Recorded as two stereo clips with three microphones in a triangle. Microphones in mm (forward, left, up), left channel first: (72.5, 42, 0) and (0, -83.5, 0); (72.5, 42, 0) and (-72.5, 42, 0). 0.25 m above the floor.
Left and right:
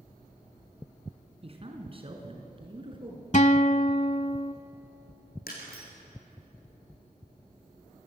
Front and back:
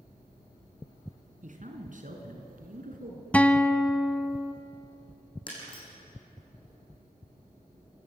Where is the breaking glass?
55° left, 7.5 m.